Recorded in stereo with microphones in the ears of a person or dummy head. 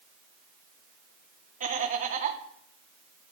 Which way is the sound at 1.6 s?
40° right (ahead or behind).